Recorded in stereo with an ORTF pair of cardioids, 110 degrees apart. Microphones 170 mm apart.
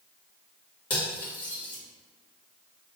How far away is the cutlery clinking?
About 1.7 m.